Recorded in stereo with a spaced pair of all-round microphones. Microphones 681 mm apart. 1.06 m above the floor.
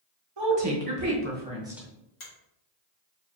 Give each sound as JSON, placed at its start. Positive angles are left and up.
{"t": 0.4, "sound": "a woman speaking", "side_deg": -40, "distance_m": 1.2}
{"t": 2.2, "sound": "a finger snap", "side_deg": 70, "distance_m": 1.6}